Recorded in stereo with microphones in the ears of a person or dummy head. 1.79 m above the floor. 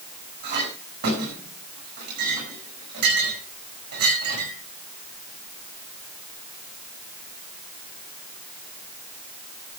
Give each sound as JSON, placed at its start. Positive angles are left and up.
{"t": 0.4, "sound": "a clink", "side_deg": -55, "distance_m": 8.0}